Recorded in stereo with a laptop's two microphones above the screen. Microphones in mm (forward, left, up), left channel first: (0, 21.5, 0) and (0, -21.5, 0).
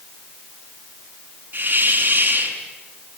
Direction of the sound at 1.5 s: 40° right (ahead or behind).